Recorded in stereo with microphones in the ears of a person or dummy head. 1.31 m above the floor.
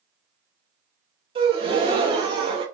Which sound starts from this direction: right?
A gasp, at 1.4 s.